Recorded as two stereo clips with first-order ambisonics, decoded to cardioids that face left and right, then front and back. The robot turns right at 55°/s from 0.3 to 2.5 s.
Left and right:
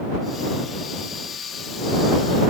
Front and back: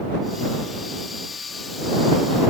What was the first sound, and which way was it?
Only background noise.